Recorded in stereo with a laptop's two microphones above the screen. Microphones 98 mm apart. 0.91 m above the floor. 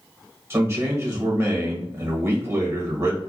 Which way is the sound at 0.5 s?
25° right (ahead or behind).